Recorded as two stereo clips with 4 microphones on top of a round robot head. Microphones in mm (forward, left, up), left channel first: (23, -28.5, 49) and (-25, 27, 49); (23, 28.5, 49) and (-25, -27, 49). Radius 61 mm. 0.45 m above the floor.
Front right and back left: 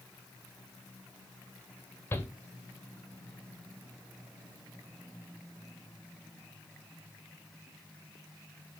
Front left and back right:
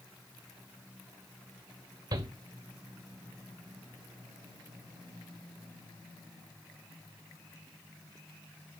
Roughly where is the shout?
Right.